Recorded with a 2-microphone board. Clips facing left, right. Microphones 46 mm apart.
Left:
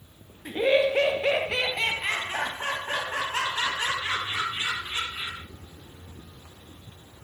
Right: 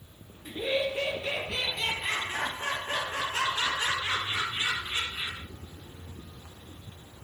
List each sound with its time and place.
0.5 s laughter: 50° left (ahead or behind), 0.6 m; by 5.5 s 30° left (ahead or behind), 3 m